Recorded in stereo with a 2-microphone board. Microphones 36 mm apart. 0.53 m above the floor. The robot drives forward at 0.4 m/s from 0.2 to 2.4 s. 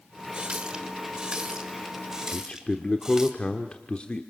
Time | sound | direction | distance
0.3 | a running tap | 25° right (ahead or behind) | 1.3 m
2.3 | a man speaking | 30° left (ahead or behind) | 1.1 m